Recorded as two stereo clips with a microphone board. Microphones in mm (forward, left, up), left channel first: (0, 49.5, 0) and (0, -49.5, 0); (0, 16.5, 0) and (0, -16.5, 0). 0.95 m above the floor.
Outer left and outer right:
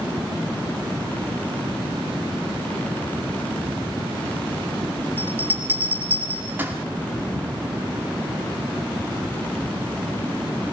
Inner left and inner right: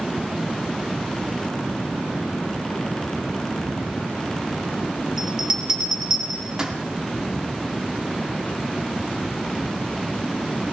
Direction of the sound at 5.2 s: 20° right (ahead or behind).